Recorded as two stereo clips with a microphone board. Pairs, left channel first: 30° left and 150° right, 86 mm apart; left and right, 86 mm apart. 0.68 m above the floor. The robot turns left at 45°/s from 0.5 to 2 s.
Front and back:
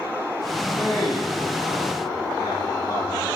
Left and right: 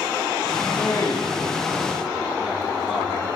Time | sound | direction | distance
0.6 | a man speaking | 60° left | 7.5 m